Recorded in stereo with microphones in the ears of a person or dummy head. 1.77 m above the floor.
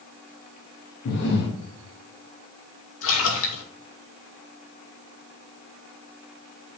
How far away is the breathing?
About 1.4 m.